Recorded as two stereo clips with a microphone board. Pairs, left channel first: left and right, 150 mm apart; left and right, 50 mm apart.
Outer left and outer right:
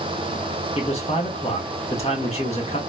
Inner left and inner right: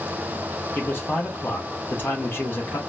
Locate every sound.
0.8 s a man speaking: 40° left (ahead or behind), 1.3 m